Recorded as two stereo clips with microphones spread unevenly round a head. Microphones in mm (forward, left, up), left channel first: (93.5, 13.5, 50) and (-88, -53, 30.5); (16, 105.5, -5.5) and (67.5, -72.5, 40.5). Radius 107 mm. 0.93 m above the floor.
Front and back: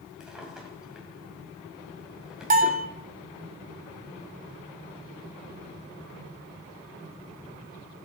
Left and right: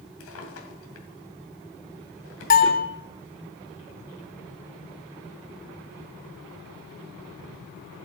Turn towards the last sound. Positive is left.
turn(degrees=150)